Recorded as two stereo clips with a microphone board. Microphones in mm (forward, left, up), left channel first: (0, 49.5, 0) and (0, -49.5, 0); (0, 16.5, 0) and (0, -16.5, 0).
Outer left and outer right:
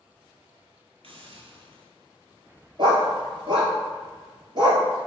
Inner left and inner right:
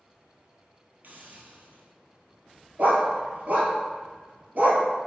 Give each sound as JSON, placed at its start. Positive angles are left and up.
{"t": 1.0, "sound": "a hiss", "side_deg": -70, "distance_m": 0.7}
{"t": 2.8, "sound": "a dog barking", "side_deg": -55, "distance_m": 1.0}